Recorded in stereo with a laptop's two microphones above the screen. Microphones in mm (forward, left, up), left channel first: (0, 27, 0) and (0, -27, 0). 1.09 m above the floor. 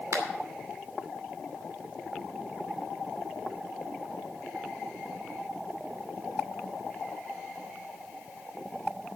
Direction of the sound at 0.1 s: 75° right (ahead or behind).